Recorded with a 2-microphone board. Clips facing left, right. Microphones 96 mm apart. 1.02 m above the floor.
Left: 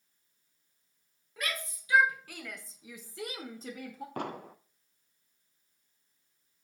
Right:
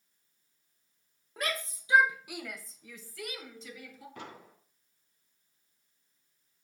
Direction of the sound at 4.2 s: 60° left (ahead or behind).